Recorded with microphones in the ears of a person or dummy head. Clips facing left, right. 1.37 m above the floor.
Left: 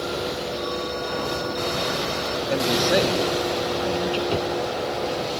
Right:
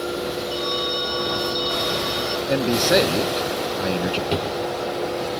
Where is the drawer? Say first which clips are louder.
Even; 20° right (ahead or behind).